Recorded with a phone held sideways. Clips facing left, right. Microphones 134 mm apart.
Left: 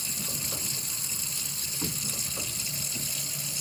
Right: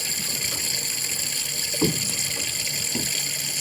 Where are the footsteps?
60° right (ahead or behind); by 3.1 s 65° right (ahead or behind).